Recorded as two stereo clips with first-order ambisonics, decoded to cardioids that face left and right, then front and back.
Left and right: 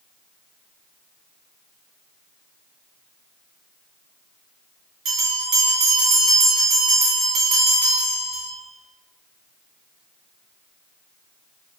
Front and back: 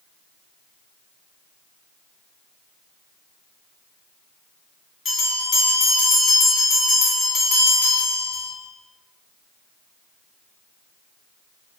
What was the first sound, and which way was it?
A bell, 60° right.